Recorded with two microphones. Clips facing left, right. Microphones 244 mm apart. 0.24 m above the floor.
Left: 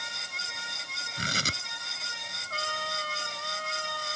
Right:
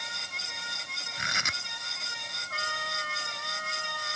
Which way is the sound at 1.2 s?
40° left (ahead or behind).